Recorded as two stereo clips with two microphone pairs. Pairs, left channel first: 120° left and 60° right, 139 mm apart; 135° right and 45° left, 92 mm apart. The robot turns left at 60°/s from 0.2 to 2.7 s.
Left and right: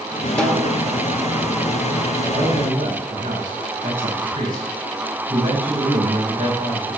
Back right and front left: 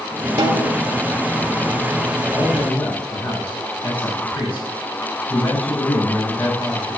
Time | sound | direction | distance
0.4 | a snare drum | 35° left | 1.1 m
2.3 | a man speaking | 40° right | 5 m